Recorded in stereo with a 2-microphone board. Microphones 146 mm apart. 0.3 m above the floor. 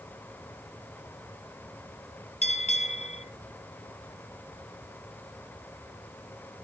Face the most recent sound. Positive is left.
turn(degrees=45)  # may be behind; listen again after turning